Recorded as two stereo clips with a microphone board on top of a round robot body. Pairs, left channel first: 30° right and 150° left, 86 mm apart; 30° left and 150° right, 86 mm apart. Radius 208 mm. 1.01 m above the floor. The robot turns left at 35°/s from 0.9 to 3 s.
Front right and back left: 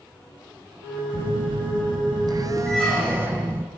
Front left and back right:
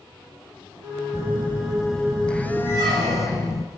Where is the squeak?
105° right, 0.6 m; by 3.6 s 120° right, 0.6 m.